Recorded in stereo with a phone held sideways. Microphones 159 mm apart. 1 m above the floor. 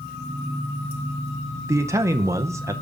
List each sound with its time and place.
1.7 s a man speaking: 20° right (ahead or behind), 0.6 m